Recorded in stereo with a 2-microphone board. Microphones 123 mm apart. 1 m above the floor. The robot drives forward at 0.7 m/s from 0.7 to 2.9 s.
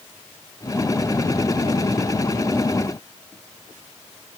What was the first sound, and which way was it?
Only background noise.